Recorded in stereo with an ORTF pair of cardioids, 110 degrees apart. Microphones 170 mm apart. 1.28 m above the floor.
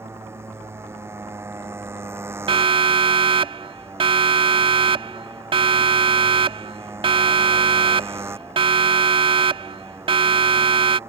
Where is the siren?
35° right.